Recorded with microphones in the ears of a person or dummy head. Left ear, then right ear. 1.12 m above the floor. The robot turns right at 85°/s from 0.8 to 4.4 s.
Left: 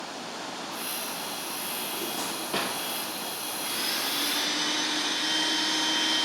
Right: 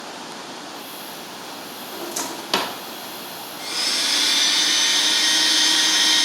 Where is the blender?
110° right, 1.3 m; by 6.2 s 45° right, 1.3 m.